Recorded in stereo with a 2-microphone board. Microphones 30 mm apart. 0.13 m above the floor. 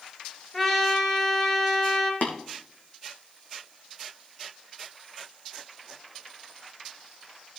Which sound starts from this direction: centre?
A trumpet, at 0.5 s.